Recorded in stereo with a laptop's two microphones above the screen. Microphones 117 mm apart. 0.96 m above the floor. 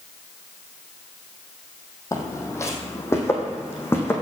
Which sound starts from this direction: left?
Footsteps, at 2.1 s.